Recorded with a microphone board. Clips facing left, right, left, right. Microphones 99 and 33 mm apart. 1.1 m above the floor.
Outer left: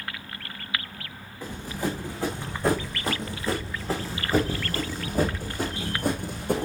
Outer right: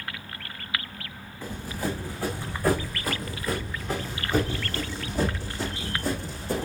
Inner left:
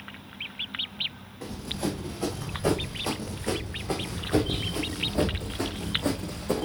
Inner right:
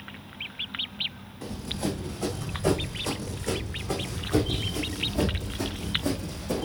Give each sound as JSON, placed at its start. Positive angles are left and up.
{"t": 1.4, "sound": "running footsteps", "side_deg": 15, "distance_m": 4.0}